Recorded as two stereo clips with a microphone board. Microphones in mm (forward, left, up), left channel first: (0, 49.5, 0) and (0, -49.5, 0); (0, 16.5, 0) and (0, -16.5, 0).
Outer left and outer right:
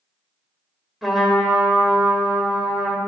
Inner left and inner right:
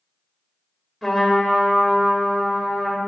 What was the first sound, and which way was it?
A trumpet, centre (ahead or behind).